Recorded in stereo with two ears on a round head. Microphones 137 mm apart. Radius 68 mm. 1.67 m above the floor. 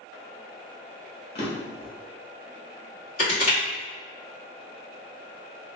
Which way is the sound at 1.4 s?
35° left (ahead or behind).